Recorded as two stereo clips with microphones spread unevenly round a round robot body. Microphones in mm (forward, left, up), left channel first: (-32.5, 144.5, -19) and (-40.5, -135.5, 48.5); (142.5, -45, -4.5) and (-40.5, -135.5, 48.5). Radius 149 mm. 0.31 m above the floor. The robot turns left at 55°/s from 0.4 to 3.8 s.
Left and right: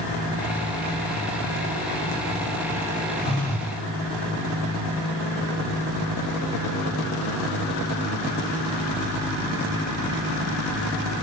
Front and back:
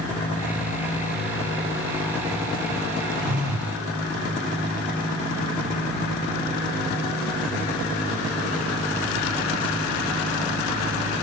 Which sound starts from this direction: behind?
A phone buzzing, at 3.2 s.